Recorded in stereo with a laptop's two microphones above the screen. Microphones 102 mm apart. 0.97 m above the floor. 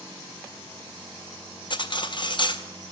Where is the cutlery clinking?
50° left (ahead or behind), 0.6 m.